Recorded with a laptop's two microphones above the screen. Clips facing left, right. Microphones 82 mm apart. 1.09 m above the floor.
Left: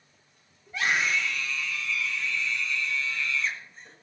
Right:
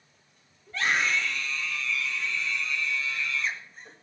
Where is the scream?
15° left (ahead or behind), 5 m; by 3.9 s 15° right (ahead or behind), 6 m.